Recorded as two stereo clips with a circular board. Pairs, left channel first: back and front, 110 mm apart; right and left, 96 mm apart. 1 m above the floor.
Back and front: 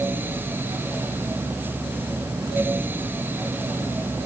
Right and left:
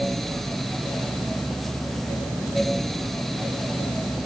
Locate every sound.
Only background noise.